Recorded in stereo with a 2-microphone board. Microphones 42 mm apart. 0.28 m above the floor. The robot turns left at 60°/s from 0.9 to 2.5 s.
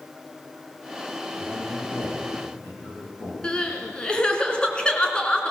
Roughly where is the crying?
Left.